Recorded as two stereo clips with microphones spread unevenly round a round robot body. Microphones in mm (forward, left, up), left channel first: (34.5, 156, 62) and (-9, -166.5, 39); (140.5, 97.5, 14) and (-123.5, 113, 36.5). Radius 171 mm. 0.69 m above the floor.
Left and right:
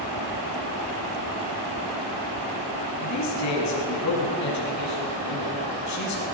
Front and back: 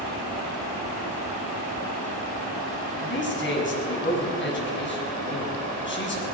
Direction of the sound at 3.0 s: 45° left.